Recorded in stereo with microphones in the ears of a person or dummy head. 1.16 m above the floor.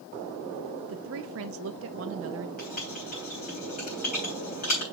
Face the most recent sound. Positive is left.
turn(degrees=35)  # may be behind; listen again after turning